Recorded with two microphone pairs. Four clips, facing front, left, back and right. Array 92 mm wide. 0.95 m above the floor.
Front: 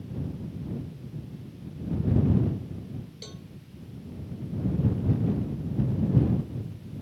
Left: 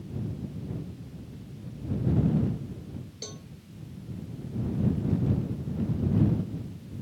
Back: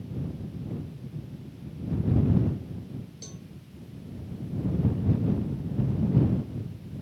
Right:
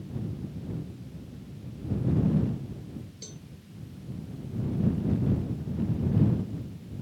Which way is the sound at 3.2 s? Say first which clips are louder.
Left 4 dB, front 1 dB; 80° left.